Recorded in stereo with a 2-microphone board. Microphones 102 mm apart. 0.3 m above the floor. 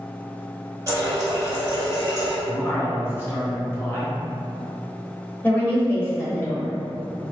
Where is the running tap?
30° right (ahead or behind), 1.0 m.